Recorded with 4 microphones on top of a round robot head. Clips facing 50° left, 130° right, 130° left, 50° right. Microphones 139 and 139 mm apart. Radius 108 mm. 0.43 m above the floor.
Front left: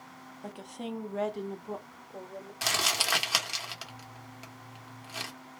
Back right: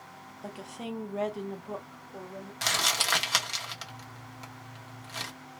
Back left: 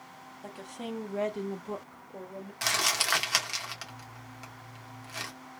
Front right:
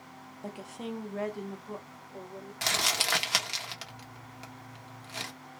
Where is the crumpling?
25° right, 1.1 m.